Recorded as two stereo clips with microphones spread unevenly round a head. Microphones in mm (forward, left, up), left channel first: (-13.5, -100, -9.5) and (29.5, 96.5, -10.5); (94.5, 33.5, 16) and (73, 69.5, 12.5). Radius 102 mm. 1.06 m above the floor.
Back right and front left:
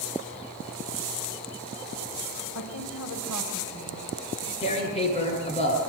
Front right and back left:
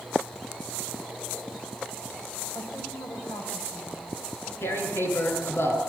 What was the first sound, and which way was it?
A woman speaking, 100° right.